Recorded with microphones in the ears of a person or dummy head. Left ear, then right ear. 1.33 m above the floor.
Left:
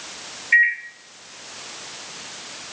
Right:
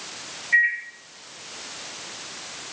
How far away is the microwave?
About 0.8 m.